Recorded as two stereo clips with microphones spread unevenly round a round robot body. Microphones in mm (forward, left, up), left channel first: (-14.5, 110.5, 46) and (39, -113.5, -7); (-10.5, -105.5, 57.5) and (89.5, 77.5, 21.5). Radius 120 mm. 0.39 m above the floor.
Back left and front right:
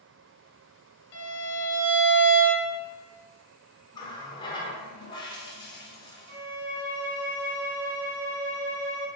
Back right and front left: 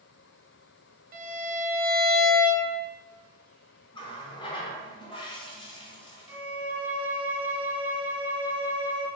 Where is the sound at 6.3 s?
20° right, 0.7 m.